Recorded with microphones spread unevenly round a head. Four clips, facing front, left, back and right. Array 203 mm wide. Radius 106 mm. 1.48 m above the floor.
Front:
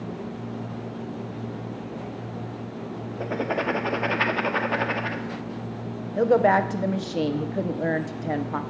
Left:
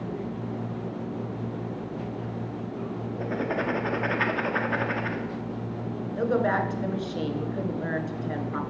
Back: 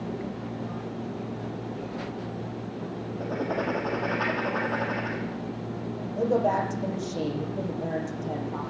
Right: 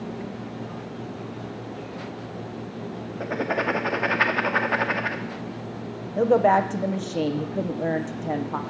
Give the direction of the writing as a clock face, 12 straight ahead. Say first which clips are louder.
Right 3 dB, front 3 dB; 1 o'clock.